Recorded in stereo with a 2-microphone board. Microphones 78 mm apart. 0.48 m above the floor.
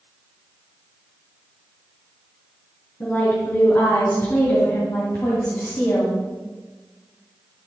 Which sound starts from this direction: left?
A woman speaking, at 3.0 s.